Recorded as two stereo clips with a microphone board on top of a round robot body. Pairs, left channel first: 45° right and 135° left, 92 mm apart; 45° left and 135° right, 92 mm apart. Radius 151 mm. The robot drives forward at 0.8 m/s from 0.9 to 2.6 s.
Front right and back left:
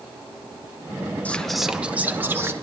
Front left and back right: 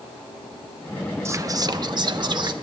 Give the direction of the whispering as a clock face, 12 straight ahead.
4 o'clock.